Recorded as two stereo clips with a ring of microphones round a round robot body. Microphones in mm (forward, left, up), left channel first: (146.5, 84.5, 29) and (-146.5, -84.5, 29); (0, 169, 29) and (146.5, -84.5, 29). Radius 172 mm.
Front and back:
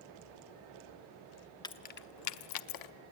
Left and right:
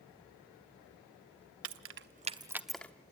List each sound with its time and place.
1.6 s keys jangling: 45° right, 0.6 m; by 2.9 s 35° left, 0.8 m